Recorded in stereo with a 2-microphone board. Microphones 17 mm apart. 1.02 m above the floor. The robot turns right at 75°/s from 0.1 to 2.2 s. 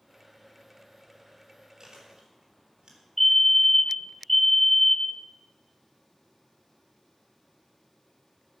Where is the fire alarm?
15° left (ahead or behind), 1.1 m.